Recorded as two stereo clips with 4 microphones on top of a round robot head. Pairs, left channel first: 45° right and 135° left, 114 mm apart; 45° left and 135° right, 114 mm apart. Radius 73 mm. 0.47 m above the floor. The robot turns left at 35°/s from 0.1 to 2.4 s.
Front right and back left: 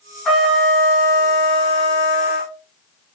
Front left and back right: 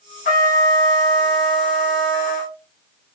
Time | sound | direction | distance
0.2 | a trumpet | 45° left | 0.9 m